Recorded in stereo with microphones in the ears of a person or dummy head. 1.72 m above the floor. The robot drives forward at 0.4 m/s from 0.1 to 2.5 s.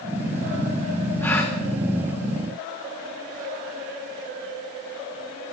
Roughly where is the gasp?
Centre.